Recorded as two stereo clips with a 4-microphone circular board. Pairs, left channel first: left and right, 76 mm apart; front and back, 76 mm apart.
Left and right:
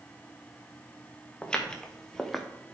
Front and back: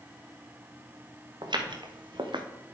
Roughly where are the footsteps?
Behind.